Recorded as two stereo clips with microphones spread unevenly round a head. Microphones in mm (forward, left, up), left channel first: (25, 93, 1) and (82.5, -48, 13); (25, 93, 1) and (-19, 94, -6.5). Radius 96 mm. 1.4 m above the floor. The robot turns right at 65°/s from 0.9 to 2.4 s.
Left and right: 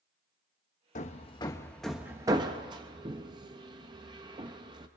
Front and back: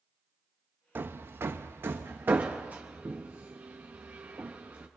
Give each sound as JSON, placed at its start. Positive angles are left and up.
{"t": 0.9, "sound": "hammering", "azimuth_deg": 145, "distance_m": 0.8}